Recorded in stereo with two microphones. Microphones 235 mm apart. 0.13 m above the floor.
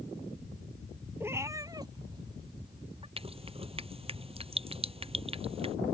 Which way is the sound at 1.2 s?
10° right (ahead or behind).